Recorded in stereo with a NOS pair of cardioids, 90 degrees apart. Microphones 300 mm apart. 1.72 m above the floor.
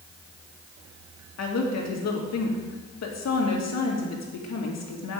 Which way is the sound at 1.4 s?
55° left.